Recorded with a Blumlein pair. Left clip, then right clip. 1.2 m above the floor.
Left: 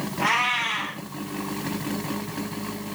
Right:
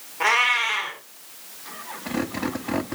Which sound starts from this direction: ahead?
A cat meowing, at 0.2 s.